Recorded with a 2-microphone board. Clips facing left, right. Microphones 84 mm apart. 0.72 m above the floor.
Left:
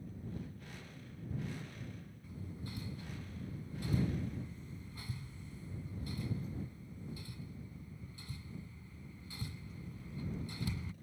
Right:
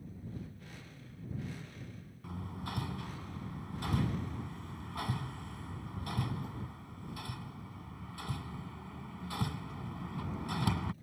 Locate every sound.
2.2 s hammering: 75° right (ahead or behind)